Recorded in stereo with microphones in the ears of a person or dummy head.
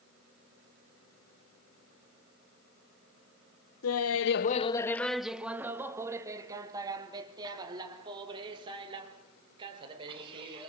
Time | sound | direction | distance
3.8 | laughter | 70° left (ahead or behind) | 0.7 m